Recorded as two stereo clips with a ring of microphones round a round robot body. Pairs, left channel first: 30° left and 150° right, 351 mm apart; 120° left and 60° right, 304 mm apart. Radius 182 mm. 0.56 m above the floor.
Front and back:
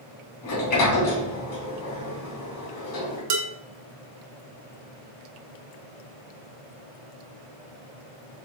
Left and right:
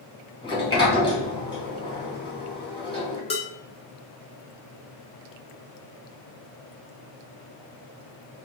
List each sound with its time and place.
0.4 s a sliding door: 45° left, 2 m
3.3 s dishes clattering: 165° right, 1.1 m